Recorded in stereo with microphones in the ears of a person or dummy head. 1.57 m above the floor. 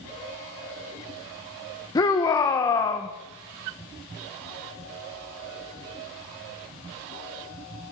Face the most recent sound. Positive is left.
turn(degrees=20)  # may be behind; listen again after turning